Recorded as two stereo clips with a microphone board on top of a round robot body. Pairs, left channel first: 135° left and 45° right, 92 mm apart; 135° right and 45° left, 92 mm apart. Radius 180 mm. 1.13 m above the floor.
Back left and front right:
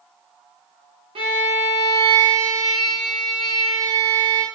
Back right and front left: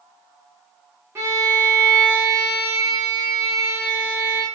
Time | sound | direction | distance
1.1 | a violin | 20° right | 0.6 m